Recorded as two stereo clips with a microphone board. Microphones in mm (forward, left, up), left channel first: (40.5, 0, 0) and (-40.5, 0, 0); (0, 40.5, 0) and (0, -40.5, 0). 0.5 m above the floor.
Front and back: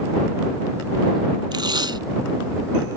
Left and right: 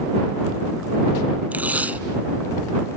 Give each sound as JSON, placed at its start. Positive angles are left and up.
{"t": 1.5, "sound": "tape being pulled", "azimuth_deg": -160}